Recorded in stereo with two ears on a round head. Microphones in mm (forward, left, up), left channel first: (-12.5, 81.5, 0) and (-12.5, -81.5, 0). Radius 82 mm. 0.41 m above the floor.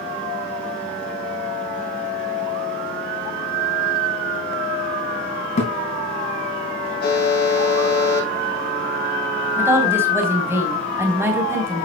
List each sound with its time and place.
5.6 s a thud: 45° left (ahead or behind), 4 m
7.0 s a buzzer: 60° left (ahead or behind), 6.5 m
9.6 s a woman speaking: 15° right (ahead or behind), 3 m